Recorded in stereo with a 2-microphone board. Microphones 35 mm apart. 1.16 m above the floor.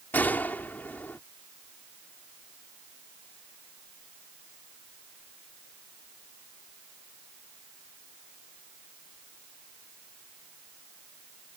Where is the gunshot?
65° left (ahead or behind).